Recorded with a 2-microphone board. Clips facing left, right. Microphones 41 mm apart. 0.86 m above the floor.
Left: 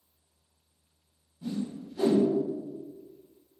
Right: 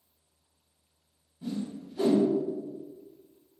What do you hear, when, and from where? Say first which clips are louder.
1.4 s a whoosh: left 1 dB; 20° right (ahead or behind), 1.3 m